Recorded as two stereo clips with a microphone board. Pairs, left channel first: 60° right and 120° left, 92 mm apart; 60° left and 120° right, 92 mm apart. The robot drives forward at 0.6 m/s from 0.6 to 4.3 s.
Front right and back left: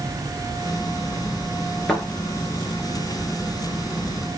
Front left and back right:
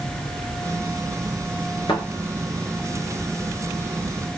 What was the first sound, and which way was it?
A thud, 20° left.